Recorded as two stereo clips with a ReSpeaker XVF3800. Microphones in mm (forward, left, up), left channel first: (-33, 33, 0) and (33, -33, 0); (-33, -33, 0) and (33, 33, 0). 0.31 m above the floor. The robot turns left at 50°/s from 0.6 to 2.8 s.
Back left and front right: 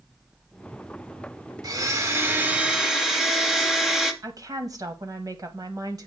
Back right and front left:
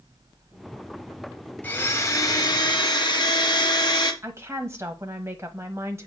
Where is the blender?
70° right, 1.1 m; by 4.1 s 130° right, 1.1 m.